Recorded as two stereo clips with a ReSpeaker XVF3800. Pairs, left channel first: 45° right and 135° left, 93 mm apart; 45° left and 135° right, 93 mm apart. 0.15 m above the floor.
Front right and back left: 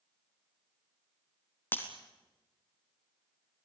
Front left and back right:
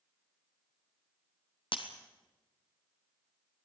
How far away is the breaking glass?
About 2 m.